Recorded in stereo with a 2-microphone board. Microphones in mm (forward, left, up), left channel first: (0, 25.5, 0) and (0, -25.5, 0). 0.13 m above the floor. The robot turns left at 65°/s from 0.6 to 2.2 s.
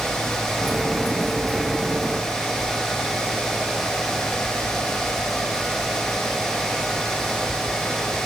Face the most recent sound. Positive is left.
No sound to turn to.